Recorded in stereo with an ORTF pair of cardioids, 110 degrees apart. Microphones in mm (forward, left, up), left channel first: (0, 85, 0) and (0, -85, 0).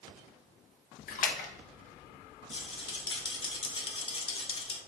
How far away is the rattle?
About 0.8 m.